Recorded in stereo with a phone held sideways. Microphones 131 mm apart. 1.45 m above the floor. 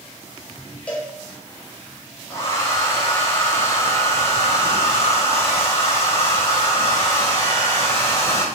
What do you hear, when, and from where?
0.9 s a cowbell: 10° left (ahead or behind), 0.8 m
2.3 s a hair dryer: 20° left (ahead or behind), 0.7 m